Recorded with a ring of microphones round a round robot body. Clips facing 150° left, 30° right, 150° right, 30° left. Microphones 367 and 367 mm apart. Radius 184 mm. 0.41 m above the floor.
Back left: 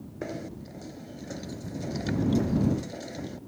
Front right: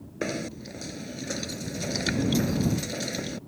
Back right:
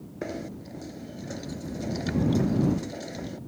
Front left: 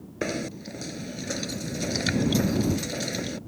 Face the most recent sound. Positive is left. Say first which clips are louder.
# front right 5 dB, front left 4 dB
turn(degrees=0)